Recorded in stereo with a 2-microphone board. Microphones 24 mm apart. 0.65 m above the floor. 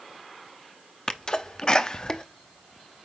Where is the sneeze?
30° left (ahead or behind), 0.8 m.